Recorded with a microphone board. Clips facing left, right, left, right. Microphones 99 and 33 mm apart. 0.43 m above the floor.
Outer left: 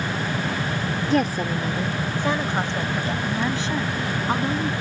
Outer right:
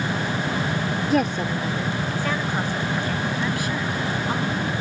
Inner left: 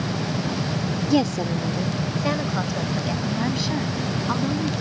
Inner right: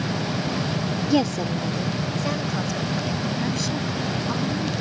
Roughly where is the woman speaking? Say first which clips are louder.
Outer left 1 dB, inner left 1 dB; centre.